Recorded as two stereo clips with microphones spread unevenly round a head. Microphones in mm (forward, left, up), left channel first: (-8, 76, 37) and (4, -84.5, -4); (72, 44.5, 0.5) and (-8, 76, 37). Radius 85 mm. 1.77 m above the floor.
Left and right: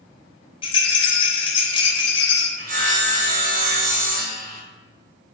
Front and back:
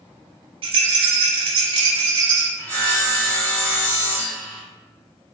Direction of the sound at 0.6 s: 155° left.